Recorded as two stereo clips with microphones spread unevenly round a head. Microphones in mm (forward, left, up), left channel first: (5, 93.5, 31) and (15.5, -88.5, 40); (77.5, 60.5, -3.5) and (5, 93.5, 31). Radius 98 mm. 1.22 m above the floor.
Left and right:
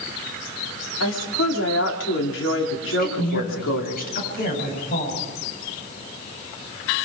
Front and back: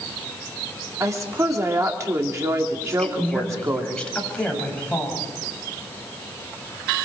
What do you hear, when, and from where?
1.0 s a woman speaking: 105° left, 3 m
2.8 s a woman speaking: 55° left, 9 m